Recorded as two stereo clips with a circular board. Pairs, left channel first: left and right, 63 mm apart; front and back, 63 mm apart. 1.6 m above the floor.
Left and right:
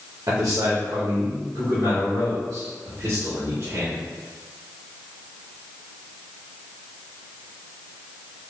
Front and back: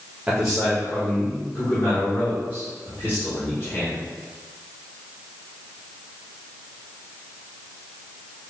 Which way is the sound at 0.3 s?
105° right.